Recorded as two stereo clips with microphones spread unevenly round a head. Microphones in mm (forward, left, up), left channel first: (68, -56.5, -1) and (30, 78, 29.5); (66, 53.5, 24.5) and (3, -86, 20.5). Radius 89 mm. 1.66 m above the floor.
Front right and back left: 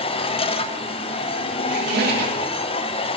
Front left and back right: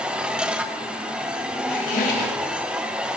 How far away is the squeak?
About 3 m.